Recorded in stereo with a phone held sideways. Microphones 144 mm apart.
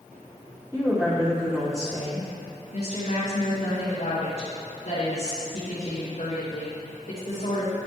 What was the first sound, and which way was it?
A woman speaking, 5° right (ahead or behind).